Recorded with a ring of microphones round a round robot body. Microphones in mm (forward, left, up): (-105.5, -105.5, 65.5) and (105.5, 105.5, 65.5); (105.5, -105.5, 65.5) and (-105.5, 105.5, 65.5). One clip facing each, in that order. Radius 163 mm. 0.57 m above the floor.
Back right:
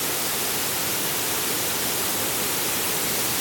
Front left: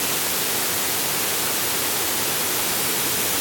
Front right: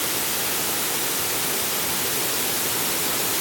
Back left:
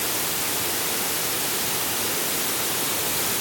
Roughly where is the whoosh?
No whoosh in this recording.